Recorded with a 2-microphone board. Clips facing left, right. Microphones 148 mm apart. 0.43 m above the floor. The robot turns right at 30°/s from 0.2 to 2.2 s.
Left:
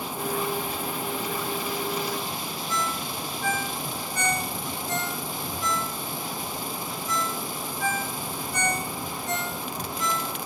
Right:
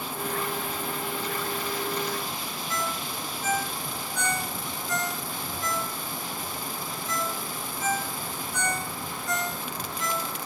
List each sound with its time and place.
2.7 s a ringtone: 70° left (ahead or behind), 3 m